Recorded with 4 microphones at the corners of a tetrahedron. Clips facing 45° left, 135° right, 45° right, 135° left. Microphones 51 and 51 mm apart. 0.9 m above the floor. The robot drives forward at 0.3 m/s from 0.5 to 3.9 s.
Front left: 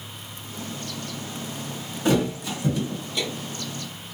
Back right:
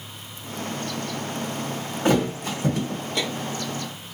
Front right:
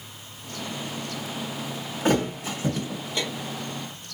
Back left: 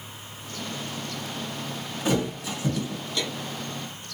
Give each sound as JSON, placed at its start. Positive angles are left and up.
{"t": 2.0, "sound": "a thud", "azimuth_deg": -90, "distance_m": 1.1}